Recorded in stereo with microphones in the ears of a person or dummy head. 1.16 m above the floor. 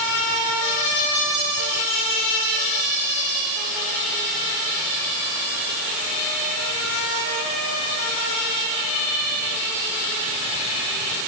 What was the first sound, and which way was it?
Only background noise.